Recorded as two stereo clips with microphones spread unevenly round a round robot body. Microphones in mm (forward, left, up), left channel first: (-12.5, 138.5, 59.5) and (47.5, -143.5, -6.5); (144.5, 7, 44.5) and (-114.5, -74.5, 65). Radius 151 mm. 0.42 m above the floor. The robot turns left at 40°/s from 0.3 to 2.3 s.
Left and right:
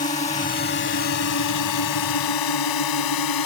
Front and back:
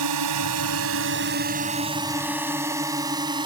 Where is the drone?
170° left; by 3.5 s 125° left.